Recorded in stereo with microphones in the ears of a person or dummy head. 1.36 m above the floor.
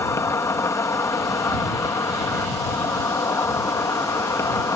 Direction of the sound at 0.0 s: 10° left (ahead or behind).